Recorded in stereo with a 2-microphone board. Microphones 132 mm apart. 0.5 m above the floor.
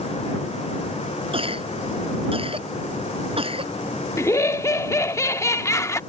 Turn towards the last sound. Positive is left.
turn(degrees=25)  # may be behind; listen again after turning